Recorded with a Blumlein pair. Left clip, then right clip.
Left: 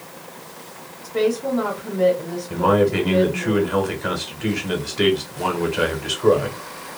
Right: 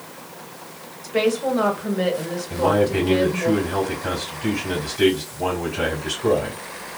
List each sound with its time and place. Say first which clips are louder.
1.0 s a woman speaking: right 1 dB; 55° right, 1.8 m
2.5 s a man speaking: left 2 dB; 25° left, 1.9 m